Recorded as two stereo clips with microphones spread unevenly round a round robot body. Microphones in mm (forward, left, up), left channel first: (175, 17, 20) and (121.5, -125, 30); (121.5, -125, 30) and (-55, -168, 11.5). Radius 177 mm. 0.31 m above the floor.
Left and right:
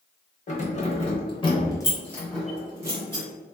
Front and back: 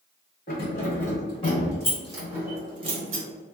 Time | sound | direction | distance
0.5 | keys jangling | 50° left | 1.1 m